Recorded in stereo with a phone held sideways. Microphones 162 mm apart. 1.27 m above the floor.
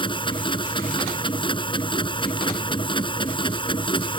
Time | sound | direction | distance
0.0 | a machine running | 30° left (ahead or behind) | ?